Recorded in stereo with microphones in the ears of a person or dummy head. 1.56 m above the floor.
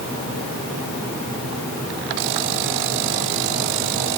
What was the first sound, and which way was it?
Only background noise.